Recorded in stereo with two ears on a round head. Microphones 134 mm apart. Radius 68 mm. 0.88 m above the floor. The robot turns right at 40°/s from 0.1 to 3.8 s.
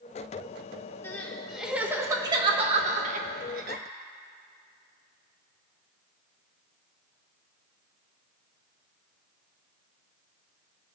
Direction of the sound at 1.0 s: 15° left (ahead or behind).